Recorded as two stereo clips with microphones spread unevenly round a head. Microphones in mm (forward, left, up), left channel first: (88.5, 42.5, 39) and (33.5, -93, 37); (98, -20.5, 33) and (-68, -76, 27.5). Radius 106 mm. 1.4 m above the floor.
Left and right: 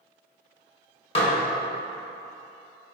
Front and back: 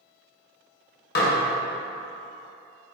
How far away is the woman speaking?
No woman speaking in this recording.